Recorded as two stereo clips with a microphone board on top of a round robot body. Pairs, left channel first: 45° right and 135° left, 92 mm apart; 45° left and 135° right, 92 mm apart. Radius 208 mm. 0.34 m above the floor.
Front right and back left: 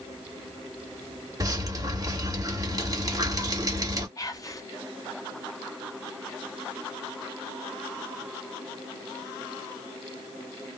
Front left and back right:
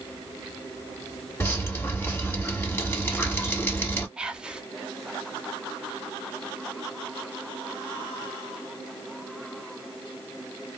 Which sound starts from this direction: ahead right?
Whispering, at 4.2 s.